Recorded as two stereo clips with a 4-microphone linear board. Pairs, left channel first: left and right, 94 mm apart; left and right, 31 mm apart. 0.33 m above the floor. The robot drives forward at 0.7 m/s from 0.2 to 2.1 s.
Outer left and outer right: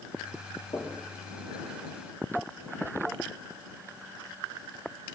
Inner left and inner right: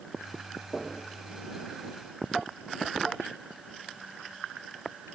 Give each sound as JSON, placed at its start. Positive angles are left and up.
{"t": 0.7, "sound": "knocking", "side_deg": 50, "distance_m": 5.0}